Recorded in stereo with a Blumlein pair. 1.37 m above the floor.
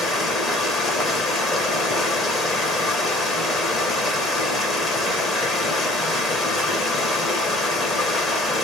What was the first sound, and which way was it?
Running water, 20° left.